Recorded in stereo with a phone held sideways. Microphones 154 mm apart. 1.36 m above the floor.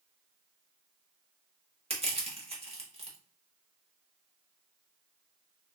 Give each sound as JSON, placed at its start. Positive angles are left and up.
{"t": 1.9, "sound": "crushing", "side_deg": -45, "distance_m": 1.0}